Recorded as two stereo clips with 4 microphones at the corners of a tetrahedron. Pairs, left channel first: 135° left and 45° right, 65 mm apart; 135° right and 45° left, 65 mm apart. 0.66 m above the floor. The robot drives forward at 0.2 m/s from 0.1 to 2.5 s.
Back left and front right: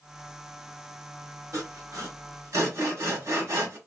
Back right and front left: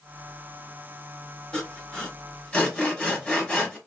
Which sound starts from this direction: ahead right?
Sawing, at 1.5 s.